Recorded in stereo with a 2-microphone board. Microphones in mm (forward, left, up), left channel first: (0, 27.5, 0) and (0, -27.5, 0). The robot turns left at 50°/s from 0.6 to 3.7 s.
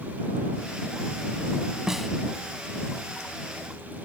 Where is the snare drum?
10° right (ahead or behind); by 2.1 s centre (ahead or behind).